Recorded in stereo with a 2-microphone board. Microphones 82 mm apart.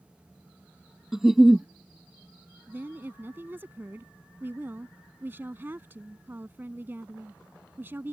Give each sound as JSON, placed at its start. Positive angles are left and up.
{"t": 1.1, "sound": "a giggle", "side_deg": -5}
{"t": 2.7, "sound": "a woman speaking", "side_deg": -25}